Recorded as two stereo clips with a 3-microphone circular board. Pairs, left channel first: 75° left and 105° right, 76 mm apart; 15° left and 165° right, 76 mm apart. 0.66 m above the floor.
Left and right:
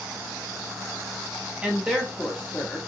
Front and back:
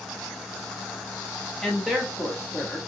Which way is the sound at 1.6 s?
60° right.